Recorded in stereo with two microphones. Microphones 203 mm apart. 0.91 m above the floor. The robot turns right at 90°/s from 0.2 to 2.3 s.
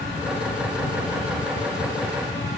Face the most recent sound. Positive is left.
No sound to turn to.